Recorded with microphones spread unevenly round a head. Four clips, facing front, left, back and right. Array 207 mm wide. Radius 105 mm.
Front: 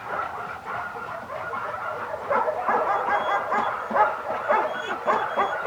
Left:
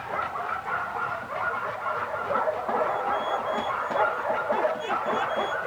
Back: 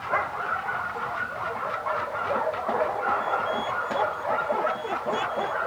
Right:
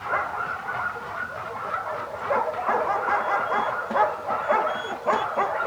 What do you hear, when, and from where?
Only background noise.